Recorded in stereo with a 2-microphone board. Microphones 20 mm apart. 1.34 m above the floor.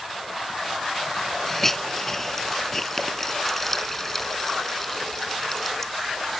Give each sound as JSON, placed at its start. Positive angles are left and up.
{"t": 1.5, "sound": "a hiss", "side_deg": 15}